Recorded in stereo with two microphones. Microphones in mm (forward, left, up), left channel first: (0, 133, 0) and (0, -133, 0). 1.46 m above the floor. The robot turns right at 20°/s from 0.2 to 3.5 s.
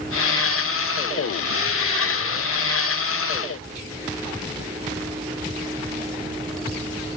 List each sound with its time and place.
Only background noise.